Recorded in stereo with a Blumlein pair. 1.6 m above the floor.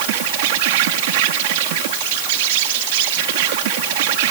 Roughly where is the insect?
Ahead right.